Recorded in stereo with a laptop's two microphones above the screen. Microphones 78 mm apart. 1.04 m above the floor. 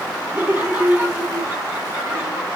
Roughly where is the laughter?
Right.